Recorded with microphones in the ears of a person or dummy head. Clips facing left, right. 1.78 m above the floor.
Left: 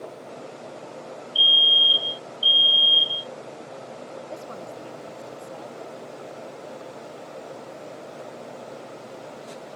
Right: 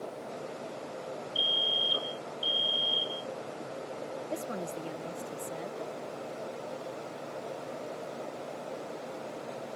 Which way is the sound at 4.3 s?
25° right (ahead or behind).